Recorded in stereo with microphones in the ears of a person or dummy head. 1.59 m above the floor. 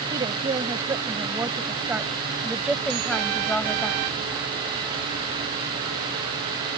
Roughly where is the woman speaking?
Right.